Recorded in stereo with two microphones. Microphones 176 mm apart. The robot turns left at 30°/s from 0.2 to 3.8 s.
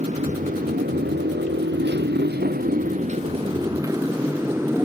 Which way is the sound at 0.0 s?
40° right (ahead or behind).